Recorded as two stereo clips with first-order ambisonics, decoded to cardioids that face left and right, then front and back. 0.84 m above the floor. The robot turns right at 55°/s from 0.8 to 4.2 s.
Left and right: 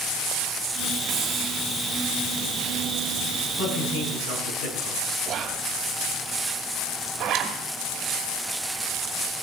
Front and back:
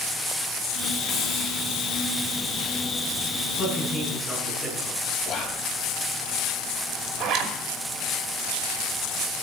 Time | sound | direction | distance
1.1 | a hiss | 50° right | 2.0 m
3.6 | a man speaking | 60° left | 8 m
5.2 | whispering | 40° right | 0.5 m
7.2 | a zipper | 140° right | 2.5 m